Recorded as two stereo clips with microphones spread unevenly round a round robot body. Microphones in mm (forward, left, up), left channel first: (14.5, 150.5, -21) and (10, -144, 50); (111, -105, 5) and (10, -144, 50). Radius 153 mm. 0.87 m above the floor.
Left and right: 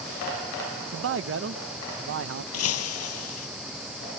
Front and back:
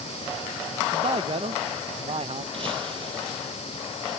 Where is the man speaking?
130° right.